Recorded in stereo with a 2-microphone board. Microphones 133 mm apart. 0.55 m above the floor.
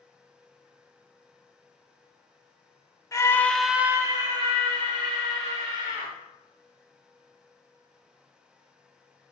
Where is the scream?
25° left (ahead or behind), 1.0 m; by 6.1 s 45° right (ahead or behind), 3 m.